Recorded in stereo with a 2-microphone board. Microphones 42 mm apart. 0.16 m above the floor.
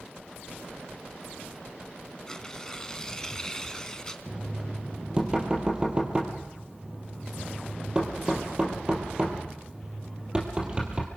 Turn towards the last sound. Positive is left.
turn(degrees=-25)  # may be behind; listen again after turning